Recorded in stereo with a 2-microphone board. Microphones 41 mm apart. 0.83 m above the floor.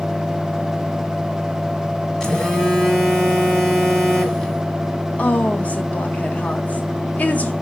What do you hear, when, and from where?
2.2 s a phone buzzing: 10° left (ahead or behind), 3.5 m
5.2 s a woman speaking: 40° left (ahead or behind), 1.4 m